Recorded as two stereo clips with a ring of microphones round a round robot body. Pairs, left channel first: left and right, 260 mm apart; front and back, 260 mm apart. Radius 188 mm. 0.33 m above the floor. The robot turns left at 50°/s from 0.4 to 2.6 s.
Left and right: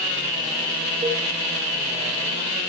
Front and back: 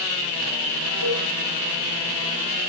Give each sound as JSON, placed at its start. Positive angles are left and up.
{"t": 1.0, "sound": "a cowbell", "azimuth_deg": -40, "distance_m": 3.0}